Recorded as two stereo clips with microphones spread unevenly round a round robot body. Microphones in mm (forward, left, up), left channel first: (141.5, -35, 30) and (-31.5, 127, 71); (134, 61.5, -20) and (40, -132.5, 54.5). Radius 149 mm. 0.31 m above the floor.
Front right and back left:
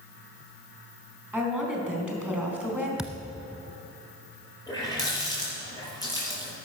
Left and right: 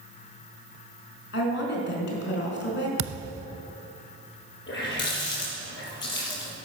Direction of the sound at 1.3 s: 50° left.